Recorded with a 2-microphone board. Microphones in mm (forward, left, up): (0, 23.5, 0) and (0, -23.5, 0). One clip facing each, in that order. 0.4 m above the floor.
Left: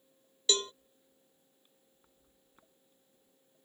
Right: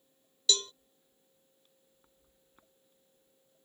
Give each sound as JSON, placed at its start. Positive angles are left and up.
{"t": 0.5, "sound": "a cowbell", "side_deg": 30}